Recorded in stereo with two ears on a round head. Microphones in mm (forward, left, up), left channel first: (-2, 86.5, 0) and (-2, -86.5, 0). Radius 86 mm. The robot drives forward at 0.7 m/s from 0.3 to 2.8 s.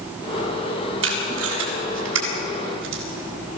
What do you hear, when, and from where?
1.0 s tape being pulled: 65° right (ahead or behind), 7.5 m; by 3.0 s 75° right (ahead or behind), 7 m